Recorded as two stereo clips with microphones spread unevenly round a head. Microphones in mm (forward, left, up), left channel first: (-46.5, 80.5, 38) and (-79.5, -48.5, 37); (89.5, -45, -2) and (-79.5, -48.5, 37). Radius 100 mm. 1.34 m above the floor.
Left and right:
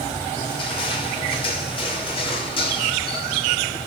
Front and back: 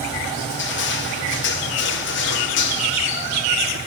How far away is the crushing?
About 3 m.